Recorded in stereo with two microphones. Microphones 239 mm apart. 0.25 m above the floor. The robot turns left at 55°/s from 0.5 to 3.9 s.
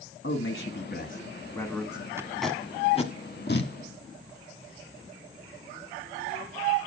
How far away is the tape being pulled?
About 1.4 m.